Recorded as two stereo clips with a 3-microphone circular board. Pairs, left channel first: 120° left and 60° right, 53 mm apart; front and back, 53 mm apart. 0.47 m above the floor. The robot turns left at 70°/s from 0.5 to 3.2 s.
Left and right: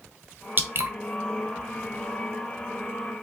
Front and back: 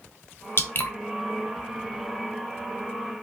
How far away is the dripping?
About 0.7 m.